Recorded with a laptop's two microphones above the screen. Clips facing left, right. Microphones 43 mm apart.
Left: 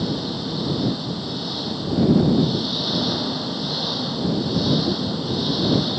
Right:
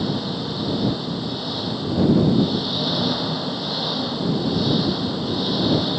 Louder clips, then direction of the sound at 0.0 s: Right 1 dB; 5° right (ahead or behind).